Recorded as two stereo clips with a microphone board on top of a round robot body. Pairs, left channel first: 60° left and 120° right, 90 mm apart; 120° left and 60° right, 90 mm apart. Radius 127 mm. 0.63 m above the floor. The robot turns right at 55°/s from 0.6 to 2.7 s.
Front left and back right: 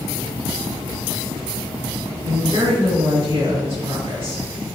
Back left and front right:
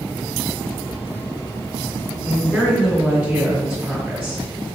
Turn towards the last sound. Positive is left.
turn(degrees=-130)